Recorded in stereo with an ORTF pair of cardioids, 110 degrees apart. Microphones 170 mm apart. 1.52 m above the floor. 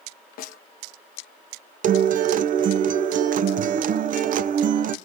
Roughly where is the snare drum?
Ahead left.